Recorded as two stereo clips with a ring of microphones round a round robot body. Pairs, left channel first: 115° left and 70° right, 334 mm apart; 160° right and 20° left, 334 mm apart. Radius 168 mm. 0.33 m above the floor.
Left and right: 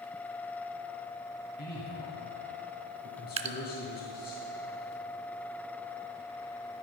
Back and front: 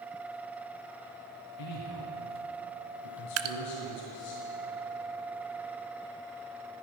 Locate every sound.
1.6 s a man speaking: 175° left, 3 m
3.4 s dripping: straight ahead, 0.6 m